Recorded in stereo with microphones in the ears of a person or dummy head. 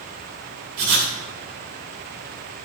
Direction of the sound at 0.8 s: 60° right (ahead or behind).